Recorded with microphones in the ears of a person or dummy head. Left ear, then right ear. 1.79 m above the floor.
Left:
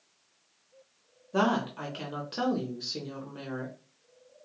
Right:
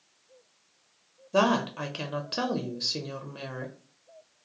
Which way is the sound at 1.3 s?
5° right (ahead or behind).